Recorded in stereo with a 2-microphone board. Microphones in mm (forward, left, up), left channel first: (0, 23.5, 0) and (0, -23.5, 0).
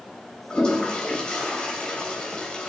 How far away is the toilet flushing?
About 3.5 m.